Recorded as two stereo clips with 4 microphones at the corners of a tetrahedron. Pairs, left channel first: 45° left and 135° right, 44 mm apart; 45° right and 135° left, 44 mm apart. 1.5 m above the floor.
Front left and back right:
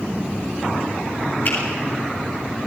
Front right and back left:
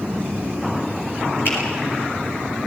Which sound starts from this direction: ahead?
A finger snap, at 1.4 s.